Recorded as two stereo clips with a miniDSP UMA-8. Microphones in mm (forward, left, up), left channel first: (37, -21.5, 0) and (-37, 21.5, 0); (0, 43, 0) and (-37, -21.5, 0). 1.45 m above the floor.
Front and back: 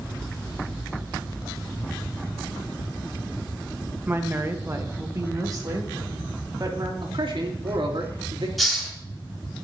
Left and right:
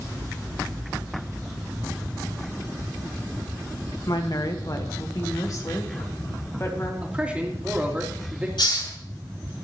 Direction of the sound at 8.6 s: 60° left.